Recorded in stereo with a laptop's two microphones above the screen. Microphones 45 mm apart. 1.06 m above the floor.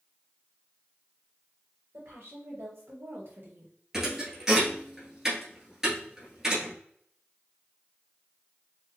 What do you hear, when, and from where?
1.9 s a woman speaking: 70° right (ahead or behind), 1.7 m; by 3.7 s 40° right (ahead or behind), 1.1 m
3.9 s a thud: 15° right (ahead or behind), 1.4 m